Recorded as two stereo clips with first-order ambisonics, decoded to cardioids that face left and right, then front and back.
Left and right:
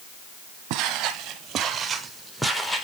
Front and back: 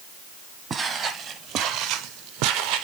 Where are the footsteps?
110° right, 1.6 m; by 2.9 s 160° left, 1.4 m.